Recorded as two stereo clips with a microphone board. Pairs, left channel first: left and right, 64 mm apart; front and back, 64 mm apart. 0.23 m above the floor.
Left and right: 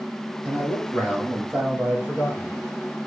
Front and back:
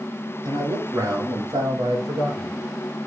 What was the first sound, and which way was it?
A man speaking, 165° right.